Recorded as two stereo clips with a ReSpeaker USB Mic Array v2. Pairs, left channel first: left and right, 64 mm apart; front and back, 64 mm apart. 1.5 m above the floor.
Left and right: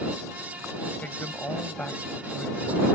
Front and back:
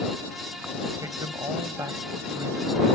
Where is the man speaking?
155° left.